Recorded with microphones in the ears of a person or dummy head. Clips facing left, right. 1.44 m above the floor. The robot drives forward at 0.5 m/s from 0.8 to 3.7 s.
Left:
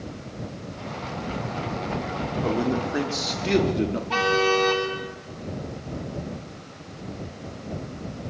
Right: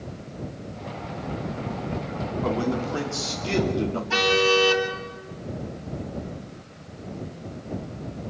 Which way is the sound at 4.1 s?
15° right (ahead or behind).